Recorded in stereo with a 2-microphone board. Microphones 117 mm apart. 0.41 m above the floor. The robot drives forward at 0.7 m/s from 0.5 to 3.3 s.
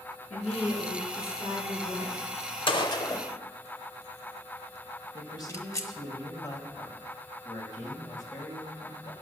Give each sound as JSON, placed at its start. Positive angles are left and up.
{"t": 0.3, "sound": "a woman speaking", "side_deg": 75, "distance_m": 5.0}
{"t": 2.7, "sound": "a gunshot", "side_deg": 45, "distance_m": 0.6}
{"t": 5.1, "sound": "a man speaking", "side_deg": 35, "distance_m": 2.0}